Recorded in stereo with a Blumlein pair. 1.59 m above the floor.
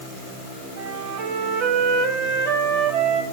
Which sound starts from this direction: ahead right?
A flute, at 0.8 s.